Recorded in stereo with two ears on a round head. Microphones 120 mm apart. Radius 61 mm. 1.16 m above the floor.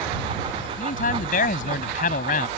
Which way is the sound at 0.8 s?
70° left (ahead or behind).